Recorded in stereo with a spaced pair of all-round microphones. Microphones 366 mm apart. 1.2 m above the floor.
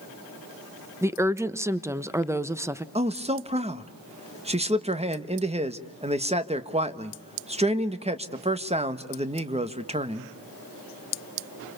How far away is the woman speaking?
About 1.1 m.